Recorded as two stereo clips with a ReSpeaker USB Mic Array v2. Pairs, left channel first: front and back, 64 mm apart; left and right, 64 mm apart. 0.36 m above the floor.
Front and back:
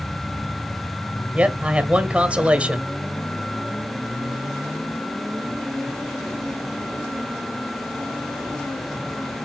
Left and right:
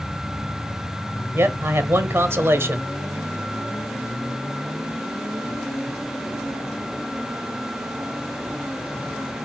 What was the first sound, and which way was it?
A man speaking, 120° right.